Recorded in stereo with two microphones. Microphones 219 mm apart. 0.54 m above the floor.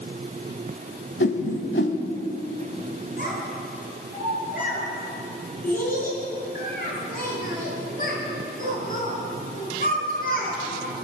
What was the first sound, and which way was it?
A whoosh, 60° left (ahead or behind).